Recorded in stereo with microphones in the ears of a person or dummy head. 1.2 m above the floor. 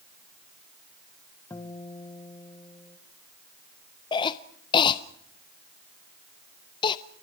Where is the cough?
25° left (ahead or behind), 0.6 m.